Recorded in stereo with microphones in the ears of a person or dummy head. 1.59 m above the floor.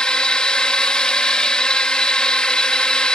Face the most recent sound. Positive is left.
turn(degrees=5)  # may be behind; listen again after turning